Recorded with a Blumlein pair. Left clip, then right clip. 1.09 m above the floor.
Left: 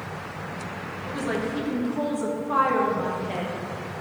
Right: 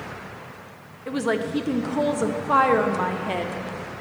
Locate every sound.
1.1 s a woman speaking: 25° right, 0.6 m